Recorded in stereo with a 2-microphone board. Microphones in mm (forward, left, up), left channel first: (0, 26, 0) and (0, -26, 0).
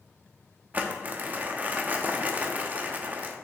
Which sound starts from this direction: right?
Crumpling, at 0.7 s.